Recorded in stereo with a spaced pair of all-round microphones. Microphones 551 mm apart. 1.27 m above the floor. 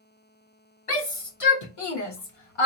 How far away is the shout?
About 2 m.